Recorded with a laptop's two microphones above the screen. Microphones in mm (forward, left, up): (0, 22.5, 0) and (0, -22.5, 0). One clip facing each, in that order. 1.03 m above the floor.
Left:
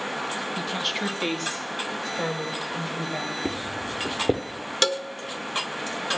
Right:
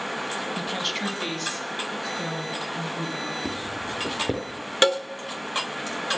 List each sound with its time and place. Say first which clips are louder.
0.6 s a woman speaking: even; 15° right (ahead or behind), 1.0 m; by 3.4 s 50° left (ahead or behind), 4.5 m
3.5 s footsteps: left 1 dB; 30° left (ahead or behind), 1.2 m
4.8 s a cowbell: right 4 dB; 25° right (ahead or behind), 0.7 m